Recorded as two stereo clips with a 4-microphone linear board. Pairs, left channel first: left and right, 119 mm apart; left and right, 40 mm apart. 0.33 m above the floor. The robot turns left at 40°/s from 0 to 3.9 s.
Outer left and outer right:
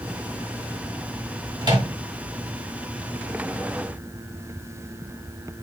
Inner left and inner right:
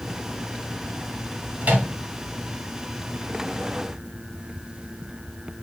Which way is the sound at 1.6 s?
40° right (ahead or behind).